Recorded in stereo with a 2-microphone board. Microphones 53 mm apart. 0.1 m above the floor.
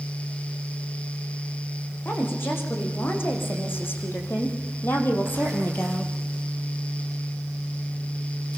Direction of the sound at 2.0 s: 45° left (ahead or behind).